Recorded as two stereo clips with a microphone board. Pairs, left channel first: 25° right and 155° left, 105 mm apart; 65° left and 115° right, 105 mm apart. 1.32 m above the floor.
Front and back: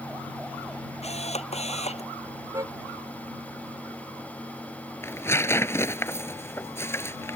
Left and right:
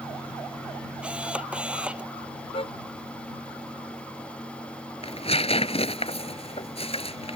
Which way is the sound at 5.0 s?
45° left.